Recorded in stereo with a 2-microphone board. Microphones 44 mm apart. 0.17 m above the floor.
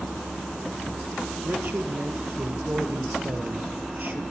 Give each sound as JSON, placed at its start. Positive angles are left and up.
{"t": 1.4, "sound": "a man speaking", "side_deg": -45, "distance_m": 3.5}